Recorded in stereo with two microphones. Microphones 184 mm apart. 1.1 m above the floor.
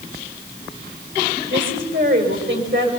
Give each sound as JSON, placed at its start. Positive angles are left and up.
{"t": 1.5, "sound": "a woman speaking", "side_deg": -85, "distance_m": 4.5}